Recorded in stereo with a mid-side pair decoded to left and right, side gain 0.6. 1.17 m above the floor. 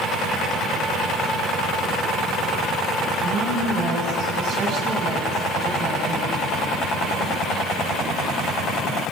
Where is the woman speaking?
55° right, 9 m.